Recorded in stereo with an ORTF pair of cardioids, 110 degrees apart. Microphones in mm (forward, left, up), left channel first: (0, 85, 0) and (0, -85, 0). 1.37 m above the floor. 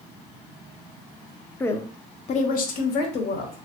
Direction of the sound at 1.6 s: 10° left.